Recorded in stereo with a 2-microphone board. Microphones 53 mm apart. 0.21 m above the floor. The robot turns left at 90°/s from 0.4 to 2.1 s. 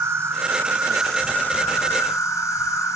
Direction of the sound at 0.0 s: 125° right.